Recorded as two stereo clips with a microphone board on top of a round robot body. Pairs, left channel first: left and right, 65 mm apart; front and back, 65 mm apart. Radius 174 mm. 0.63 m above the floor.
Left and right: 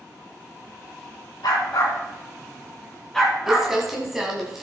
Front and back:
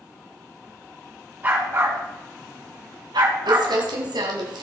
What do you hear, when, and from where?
1.4 s a dog barking: 115° left, 2 m; by 3.7 s 170° right, 2.5 m
3.5 s crumpling: 170° right, 1.8 m